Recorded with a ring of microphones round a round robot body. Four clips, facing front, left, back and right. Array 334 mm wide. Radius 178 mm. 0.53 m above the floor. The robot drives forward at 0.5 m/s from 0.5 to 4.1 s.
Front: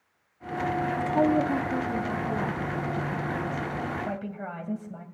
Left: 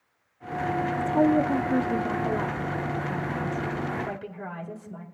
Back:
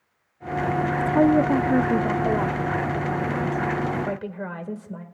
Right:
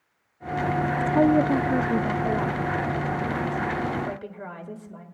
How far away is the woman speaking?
About 0.6 m.